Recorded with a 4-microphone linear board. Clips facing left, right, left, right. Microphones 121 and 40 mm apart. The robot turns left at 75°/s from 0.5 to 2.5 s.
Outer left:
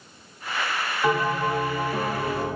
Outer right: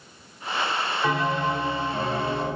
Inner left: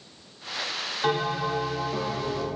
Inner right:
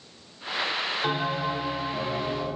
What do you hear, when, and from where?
1.0 s a bell: 160° left, 1.5 m; by 2.6 s 50° left, 1.5 m